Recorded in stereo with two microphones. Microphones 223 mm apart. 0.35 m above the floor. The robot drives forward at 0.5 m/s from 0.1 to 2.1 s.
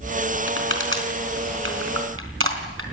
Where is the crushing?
55° right (ahead or behind), 4 m; by 2.8 s 65° right (ahead or behind), 3.5 m.